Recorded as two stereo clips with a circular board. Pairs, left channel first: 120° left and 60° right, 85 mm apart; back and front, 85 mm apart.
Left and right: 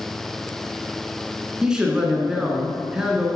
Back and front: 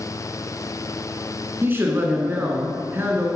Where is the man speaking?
10° left, 1.6 m.